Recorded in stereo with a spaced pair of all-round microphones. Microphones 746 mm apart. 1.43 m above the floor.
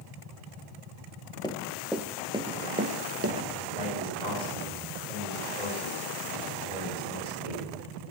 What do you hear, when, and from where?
1.4 s running footsteps: 5° left (ahead or behind), 1.5 m; by 3.5 s 20° right (ahead or behind), 1.5 m
3.7 s a man speaking: 55° right (ahead or behind), 7 m